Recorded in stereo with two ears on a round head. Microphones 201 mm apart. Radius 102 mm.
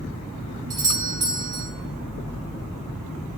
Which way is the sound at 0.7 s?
20° right (ahead or behind).